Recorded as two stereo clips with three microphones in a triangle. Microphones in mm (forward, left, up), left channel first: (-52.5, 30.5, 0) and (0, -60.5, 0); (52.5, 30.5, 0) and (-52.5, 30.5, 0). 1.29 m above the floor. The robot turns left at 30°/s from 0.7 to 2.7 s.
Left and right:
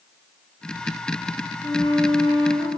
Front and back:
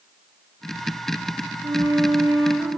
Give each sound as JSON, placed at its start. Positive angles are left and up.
{"t": 1.6, "sound": "a flute", "azimuth_deg": 160, "distance_m": 3.0}